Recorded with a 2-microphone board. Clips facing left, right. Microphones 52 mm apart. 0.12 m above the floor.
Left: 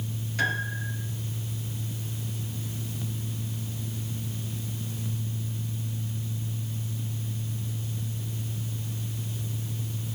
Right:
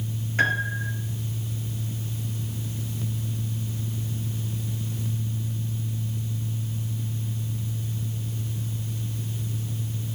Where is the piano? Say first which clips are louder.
Right 5 dB; 35° right (ahead or behind), 2.5 m.